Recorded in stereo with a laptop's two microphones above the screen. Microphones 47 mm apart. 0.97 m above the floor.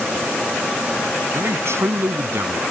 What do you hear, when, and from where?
1.3 s a man speaking: 65° right (ahead or behind); by 2.6 s 55° right (ahead or behind)